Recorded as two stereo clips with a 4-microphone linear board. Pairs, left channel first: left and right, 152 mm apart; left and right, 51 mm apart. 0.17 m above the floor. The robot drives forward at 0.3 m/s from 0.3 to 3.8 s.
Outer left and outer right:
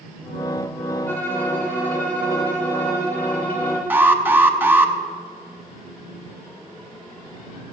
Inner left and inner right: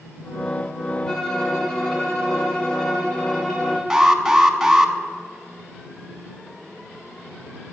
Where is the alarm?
15° right (ahead or behind), 0.8 m.